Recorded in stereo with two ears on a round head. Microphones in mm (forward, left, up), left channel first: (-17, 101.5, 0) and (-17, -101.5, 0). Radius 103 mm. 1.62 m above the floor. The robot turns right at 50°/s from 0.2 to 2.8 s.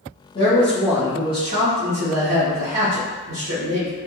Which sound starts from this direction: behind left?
A man speaking, at 0.3 s.